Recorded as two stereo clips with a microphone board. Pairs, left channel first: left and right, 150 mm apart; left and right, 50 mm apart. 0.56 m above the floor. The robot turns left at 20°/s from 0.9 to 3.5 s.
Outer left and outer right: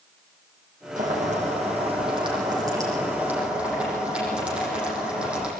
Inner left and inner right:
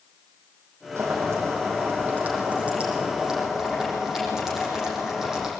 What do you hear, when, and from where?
1.0 s boiling: 120° right, 8 m; by 5.5 s 175° right, 8 m